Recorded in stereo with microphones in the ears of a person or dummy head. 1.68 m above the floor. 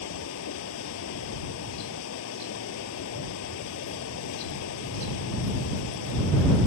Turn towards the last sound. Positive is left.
turn(degrees=80)